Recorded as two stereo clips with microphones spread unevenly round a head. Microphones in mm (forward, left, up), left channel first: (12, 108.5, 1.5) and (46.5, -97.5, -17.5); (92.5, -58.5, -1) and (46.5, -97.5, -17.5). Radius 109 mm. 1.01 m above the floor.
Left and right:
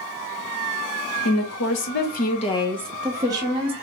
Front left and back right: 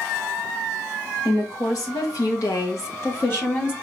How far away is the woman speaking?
About 1.1 m.